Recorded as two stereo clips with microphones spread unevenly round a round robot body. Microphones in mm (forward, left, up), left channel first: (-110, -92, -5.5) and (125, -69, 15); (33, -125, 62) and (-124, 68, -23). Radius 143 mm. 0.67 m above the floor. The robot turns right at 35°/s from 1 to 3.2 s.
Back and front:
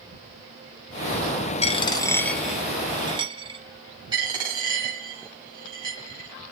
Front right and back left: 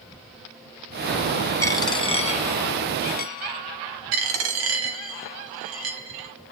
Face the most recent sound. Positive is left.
turn(degrees=80)